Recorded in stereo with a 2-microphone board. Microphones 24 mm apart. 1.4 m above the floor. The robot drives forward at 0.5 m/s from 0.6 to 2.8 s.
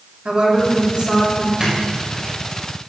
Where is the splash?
30° right (ahead or behind), 5.5 m; by 2.4 s 25° right (ahead or behind), 6 m.